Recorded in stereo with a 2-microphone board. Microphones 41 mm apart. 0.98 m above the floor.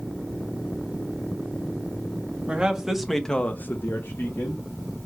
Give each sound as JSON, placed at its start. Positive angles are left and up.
{"t": 2.5, "sound": "a man speaking", "side_deg": -20, "distance_m": 1.4}